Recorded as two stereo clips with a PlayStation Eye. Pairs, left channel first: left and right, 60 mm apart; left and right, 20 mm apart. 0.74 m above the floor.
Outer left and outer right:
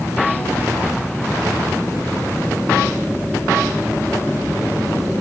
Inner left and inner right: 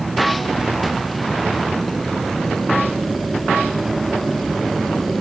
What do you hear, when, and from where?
0.6 s whispering: 35° right (ahead or behind), 1.0 m